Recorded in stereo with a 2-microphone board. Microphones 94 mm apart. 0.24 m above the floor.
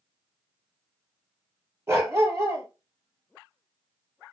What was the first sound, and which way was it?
A dog barking, 30° right (ahead or behind).